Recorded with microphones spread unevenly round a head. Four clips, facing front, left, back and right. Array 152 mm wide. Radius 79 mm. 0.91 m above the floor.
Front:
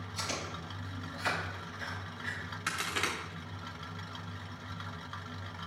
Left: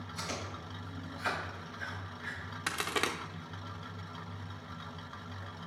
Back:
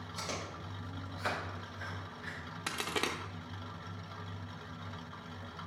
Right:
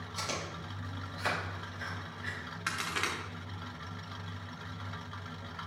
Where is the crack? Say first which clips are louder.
Left 2 dB, even; 140° left, 0.6 m.